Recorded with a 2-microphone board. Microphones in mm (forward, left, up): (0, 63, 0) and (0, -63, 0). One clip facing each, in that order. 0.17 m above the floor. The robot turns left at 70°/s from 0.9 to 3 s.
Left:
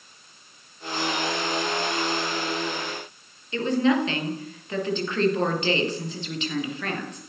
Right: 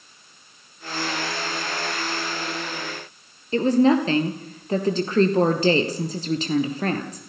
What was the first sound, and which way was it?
A woman speaking, 35° right (ahead or behind).